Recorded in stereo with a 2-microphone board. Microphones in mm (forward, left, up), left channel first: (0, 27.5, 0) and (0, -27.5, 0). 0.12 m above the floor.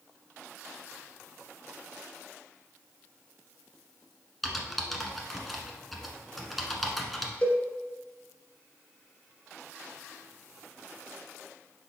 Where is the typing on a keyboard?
Centre (ahead or behind), 1.1 m.